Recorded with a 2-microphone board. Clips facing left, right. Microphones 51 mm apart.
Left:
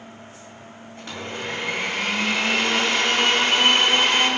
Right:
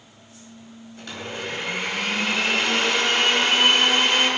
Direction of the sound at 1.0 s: 40° left (ahead or behind).